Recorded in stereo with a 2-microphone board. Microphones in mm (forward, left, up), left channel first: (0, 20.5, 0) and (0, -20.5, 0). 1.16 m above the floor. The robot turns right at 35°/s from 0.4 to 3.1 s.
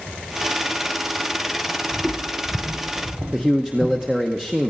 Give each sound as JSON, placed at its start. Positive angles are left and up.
{"t": 1.9, "sound": "footsteps", "side_deg": -40, "distance_m": 1.7}
{"t": 3.3, "sound": "a man speaking", "side_deg": -10, "distance_m": 1.1}